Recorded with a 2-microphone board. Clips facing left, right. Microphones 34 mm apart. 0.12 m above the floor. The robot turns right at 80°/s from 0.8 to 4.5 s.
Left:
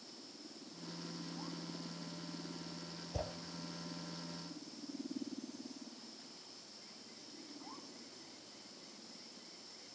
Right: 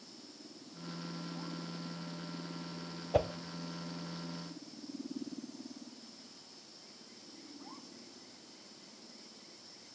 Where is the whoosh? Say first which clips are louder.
Right 13 dB; 60° right (ahead or behind), 1.2 m; by 3.3 s 65° right (ahead or behind), 1.2 m.